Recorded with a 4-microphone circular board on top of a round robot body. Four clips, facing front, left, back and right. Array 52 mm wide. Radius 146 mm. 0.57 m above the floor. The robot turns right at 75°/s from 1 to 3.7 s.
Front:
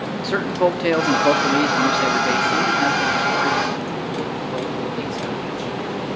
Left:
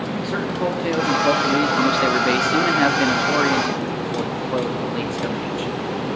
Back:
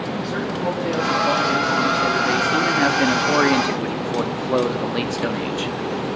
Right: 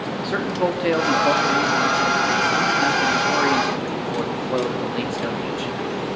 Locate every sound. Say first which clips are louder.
0.2 s a man speaking: right 2 dB, front 8 dB; 20° right, 1.1 m; by 5.7 s 175° right, 1.1 m